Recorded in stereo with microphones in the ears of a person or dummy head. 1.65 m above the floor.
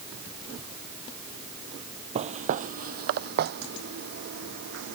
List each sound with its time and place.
2.1 s footsteps: 35° right (ahead or behind); by 5.0 s 65° right (ahead or behind)